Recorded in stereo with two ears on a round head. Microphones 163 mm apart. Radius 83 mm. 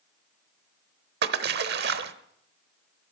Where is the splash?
60° right (ahead or behind), 1.0 m.